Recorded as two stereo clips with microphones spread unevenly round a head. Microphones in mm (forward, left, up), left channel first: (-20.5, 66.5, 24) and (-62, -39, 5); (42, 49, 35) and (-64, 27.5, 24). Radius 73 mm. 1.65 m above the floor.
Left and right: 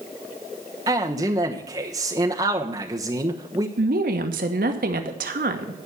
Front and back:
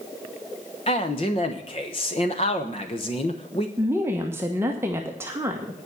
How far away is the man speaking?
About 1.1 m.